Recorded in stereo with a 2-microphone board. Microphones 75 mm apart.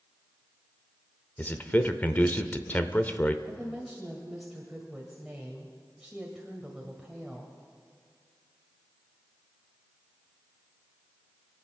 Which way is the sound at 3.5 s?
5° right (ahead or behind).